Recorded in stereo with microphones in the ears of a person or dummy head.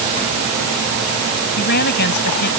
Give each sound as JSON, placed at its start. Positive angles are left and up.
{"t": 1.6, "sound": "a woman speaking", "side_deg": 55}